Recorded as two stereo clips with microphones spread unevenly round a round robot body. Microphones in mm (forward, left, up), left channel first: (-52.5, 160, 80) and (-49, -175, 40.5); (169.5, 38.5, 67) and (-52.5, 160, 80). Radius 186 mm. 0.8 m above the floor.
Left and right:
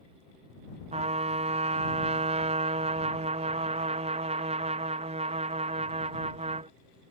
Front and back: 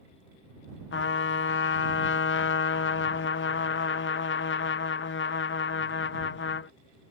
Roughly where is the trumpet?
Ahead right.